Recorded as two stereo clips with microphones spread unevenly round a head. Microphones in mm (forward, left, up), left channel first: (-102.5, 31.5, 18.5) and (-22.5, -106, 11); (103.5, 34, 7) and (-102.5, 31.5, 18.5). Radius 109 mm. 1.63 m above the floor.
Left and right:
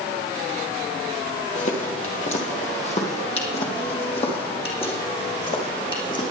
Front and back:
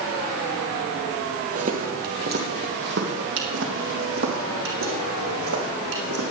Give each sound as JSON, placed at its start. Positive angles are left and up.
{"t": 1.6, "sound": "footsteps", "azimuth_deg": 140, "distance_m": 2.5}